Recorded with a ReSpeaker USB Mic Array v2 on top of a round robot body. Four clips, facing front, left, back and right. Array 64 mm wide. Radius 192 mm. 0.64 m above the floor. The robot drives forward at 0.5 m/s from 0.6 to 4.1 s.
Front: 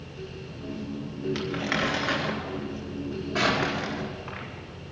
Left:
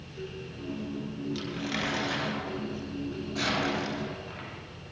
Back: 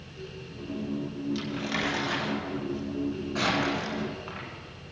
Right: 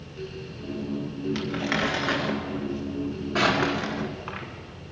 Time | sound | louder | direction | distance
1.4 | crumpling | right 8 dB, front 6 dB | 45° right | 1.9 m